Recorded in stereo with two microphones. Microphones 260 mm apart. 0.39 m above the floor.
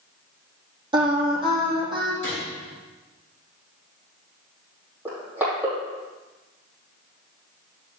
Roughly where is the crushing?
Centre.